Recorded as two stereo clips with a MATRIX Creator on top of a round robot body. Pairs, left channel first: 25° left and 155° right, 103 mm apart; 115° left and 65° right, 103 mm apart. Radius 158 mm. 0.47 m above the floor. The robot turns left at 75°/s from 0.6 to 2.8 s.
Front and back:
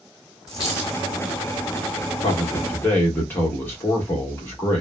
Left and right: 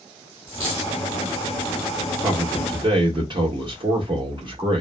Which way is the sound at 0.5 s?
105° right.